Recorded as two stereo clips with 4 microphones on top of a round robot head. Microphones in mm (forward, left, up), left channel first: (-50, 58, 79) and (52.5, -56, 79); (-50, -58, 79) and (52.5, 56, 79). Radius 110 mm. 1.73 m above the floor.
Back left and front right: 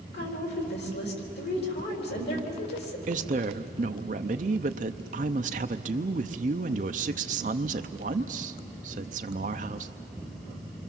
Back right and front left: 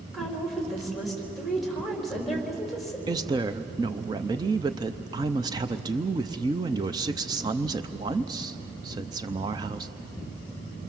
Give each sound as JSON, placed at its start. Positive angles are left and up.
{"t": 0.1, "sound": "a woman speaking", "azimuth_deg": 140, "distance_m": 4.0}
{"t": 3.1, "sound": "a woman speaking", "azimuth_deg": -15, "distance_m": 0.6}